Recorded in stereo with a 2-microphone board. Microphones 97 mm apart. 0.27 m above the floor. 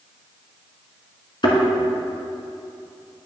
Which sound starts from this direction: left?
A thud, at 1.4 s.